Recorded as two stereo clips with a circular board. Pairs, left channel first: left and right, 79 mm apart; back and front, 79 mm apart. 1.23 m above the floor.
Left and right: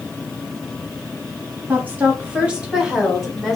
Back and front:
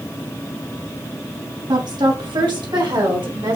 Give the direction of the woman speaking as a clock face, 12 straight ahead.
1 o'clock.